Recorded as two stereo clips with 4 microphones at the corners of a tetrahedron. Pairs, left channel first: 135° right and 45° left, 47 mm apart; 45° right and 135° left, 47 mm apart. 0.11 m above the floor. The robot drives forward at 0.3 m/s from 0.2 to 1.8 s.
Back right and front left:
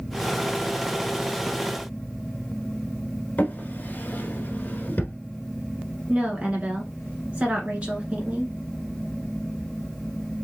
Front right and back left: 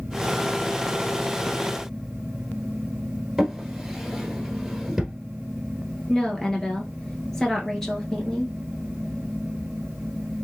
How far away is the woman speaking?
About 1.5 m.